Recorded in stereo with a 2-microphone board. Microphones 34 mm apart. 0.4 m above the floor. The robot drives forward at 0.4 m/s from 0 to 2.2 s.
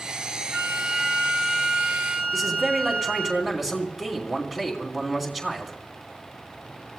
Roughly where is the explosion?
No explosion in this recording.